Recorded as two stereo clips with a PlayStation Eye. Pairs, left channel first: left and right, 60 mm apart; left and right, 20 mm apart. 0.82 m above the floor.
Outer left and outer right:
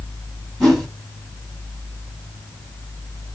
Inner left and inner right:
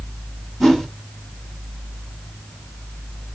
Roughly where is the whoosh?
Centre.